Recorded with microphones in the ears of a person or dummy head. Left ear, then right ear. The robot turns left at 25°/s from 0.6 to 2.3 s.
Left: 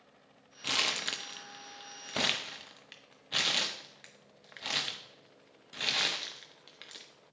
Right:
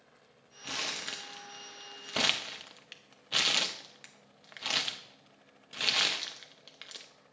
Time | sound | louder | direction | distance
0.6 | crumpling | left 5 dB | 20° left (ahead or behind) | 0.6 m